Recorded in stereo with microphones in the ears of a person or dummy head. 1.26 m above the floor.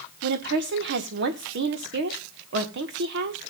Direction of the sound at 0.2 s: 55° right (ahead or behind).